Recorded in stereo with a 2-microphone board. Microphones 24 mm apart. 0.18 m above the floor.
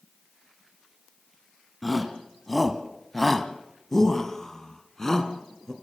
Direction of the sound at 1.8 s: Centre (ahead or behind).